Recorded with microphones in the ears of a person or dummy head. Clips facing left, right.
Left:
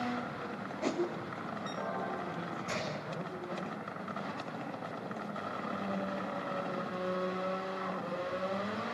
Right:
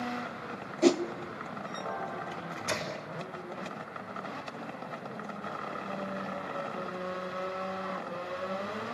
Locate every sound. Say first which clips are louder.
0.8 s a whoosh: right 10 dB; 60° right (ahead or behind), 1.3 m
2.3 s a microwave: right 1 dB; 80° right, 6 m